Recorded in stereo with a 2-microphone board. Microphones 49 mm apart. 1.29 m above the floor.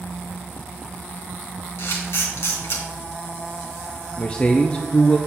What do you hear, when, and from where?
1.8 s a camera shutter: 60° left (ahead or behind), 2 m
4.2 s a man speaking: 20° left (ahead or behind), 0.5 m